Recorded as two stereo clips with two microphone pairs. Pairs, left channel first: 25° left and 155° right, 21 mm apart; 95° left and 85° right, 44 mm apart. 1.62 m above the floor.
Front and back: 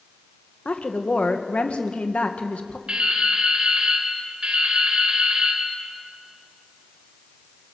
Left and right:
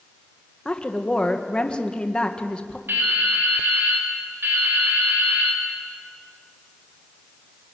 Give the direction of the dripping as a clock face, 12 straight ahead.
4 o'clock.